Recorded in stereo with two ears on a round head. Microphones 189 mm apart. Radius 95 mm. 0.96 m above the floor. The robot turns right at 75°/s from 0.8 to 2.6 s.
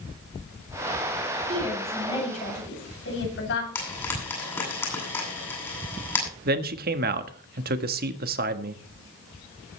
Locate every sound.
1.5 s a woman speaking: 30° right, 7.5 m; by 3.6 s 55° left, 7.5 m
3.8 s frying: 10° left (ahead or behind), 8.5 m
6.5 s a man speaking: 45° right (ahead or behind), 1.4 m